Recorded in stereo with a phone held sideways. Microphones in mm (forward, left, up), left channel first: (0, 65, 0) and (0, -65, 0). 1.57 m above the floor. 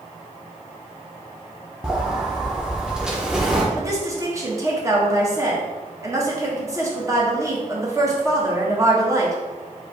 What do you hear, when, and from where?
1.8 s a sliding door: 5° right (ahead or behind), 0.8 m
3.7 s a woman speaking: 25° right (ahead or behind), 1.2 m